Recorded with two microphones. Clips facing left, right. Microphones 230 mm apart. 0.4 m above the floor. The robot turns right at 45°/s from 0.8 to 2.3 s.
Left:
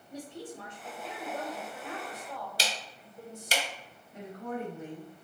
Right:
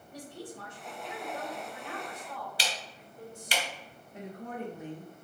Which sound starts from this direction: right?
A woman speaking, at 4.1 s.